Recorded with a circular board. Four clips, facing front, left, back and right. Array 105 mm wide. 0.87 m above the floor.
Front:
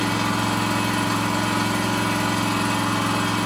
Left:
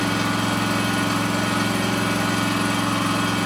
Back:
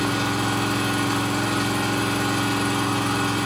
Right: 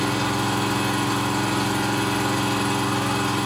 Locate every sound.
0.0 s an engine running: 65° left, 4.5 m